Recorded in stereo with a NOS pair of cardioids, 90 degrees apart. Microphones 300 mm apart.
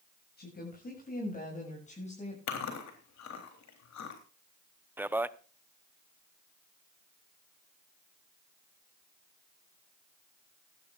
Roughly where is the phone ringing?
I don't hear a phone ringing.